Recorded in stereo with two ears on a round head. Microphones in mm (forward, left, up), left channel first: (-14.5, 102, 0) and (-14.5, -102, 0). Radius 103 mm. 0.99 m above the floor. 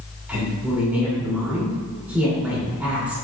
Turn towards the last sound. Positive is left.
turn(degrees=-5)  # may be behind; listen again after turning